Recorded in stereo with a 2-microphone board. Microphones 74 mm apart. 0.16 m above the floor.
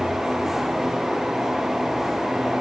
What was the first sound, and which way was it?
Only background noise.